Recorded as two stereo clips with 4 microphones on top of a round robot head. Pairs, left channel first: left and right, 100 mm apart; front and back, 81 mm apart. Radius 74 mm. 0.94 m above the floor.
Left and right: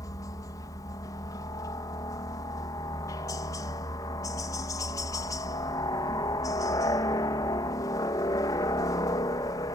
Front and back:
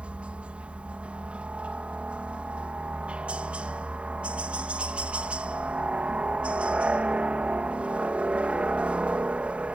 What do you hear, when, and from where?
0.0 s a helicopter: 115° left